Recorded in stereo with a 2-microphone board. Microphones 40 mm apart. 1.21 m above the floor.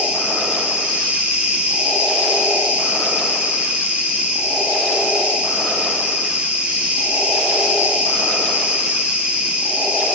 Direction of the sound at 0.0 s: 25° right (ahead or behind).